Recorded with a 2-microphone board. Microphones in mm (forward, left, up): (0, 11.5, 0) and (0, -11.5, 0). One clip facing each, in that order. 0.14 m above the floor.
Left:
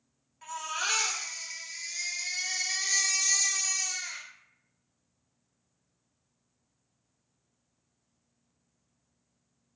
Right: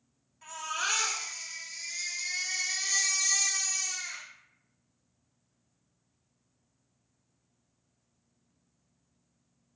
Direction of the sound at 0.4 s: 20° left (ahead or behind).